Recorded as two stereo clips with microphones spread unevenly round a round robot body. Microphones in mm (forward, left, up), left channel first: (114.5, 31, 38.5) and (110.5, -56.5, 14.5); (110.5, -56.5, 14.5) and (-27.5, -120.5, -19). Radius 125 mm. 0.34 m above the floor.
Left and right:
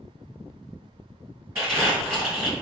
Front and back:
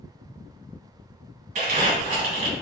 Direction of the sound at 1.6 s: 155° right.